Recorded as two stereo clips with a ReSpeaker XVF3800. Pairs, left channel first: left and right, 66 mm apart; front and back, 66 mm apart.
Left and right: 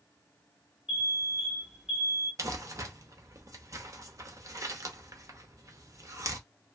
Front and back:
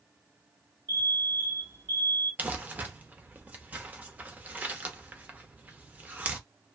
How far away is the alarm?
About 1.6 m.